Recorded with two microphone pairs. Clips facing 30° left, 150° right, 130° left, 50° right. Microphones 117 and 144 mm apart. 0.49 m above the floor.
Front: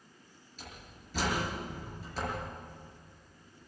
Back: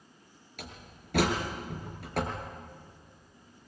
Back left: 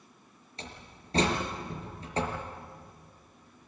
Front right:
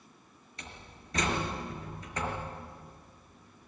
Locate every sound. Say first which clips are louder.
0.6 s a door slam: back 3 dB, back left 3 dB; 175° right, 5.5 m